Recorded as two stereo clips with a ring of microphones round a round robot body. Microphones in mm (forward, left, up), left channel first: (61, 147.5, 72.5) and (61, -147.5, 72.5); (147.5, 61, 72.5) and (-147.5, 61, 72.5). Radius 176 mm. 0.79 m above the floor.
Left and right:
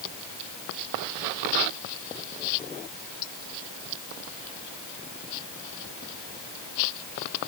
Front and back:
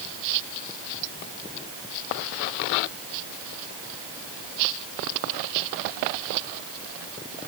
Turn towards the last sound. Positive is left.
No sound to turn to.